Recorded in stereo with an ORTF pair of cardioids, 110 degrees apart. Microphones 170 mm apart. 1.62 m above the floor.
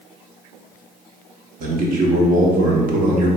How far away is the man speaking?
About 1.2 m.